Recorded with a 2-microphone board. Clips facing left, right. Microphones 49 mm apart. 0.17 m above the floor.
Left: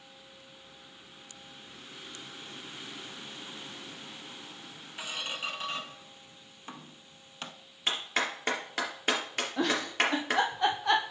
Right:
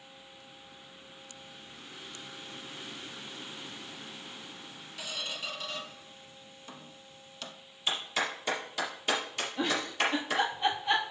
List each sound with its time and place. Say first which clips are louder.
5.0 s a squeak: left 2 dB; 35° left (ahead or behind), 0.8 m
7.9 s a clap: left 1 dB; 55° left (ahead or behind), 3 m
9.6 s a giggle: left 2 dB; 65° left (ahead or behind), 1.5 m